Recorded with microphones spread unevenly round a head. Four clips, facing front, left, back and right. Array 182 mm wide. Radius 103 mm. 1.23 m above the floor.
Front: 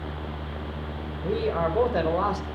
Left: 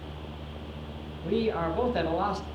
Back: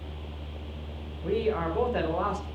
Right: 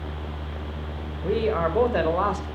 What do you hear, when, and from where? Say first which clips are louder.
1.2 s a man speaking: right 4 dB, front 2 dB; 60° right, 4.5 m; by 2.5 s 55° right, 4 m